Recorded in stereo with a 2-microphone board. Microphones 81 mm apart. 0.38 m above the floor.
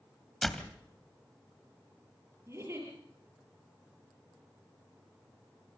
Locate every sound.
0.4 s a door slam: 5° left (ahead or behind), 1.7 m
2.5 s a giggle: 35° right (ahead or behind), 9 m